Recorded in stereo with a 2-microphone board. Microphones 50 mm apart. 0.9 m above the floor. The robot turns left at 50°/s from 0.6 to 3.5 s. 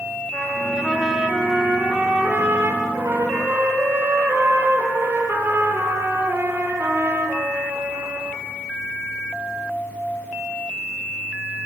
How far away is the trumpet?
About 7.5 m.